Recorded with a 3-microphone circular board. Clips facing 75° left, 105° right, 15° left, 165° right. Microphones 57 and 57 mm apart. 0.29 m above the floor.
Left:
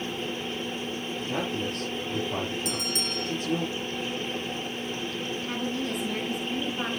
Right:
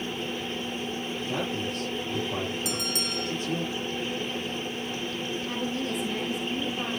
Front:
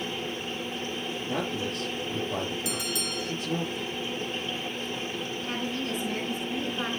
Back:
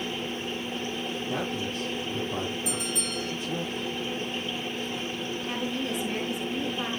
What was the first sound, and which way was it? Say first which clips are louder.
A man speaking: left 1 dB, front 2 dB; 25° left.